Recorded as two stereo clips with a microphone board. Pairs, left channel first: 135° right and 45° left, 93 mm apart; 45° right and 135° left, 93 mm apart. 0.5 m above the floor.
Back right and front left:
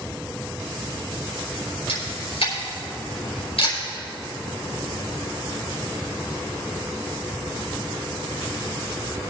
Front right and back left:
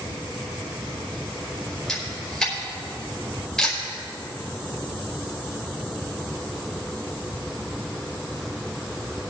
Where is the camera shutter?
130° right, 5 m.